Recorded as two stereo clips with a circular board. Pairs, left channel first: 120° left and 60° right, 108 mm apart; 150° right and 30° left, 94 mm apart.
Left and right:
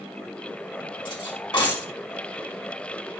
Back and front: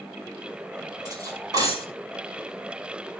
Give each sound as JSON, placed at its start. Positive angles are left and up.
{"t": 1.1, "sound": "cutlery clinking", "azimuth_deg": 75, "distance_m": 3.5}